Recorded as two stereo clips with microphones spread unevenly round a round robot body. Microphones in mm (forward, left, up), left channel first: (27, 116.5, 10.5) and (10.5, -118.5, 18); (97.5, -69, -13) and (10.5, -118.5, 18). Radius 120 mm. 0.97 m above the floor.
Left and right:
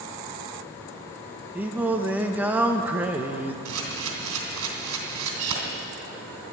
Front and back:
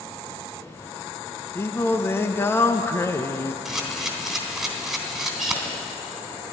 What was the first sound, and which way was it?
Singing, 10° right.